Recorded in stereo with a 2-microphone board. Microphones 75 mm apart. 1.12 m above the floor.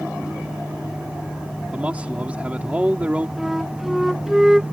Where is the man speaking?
15° right (ahead or behind).